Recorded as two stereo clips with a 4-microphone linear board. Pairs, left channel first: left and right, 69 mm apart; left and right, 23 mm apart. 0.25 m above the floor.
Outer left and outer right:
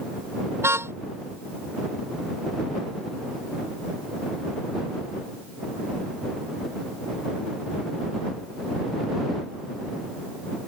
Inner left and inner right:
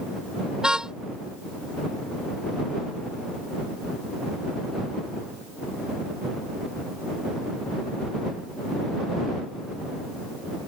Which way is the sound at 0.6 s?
40° right (ahead or behind).